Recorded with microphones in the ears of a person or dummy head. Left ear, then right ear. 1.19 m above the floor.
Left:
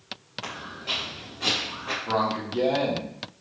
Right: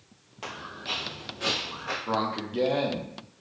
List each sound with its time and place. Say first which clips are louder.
0.4 s footsteps: left 1 dB; 40° right (ahead or behind), 1.6 m; by 2.0 s 20° right (ahead or behind), 2.0 m
2.1 s a man speaking: left 4 dB; 25° right (ahead or behind), 0.8 m